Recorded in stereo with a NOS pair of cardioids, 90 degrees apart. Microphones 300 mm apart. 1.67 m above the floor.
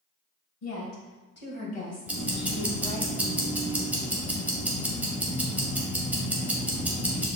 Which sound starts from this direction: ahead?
Ticking, at 2.1 s.